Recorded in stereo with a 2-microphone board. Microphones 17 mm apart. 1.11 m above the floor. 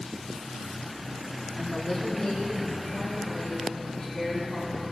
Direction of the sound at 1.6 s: 50° left (ahead or behind).